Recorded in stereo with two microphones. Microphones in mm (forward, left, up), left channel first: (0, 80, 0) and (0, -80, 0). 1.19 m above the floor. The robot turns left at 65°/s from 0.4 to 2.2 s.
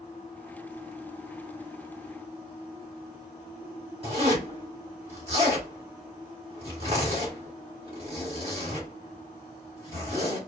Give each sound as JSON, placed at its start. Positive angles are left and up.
{"t": 4.0, "sound": "a zipper", "side_deg": -40, "distance_m": 1.8}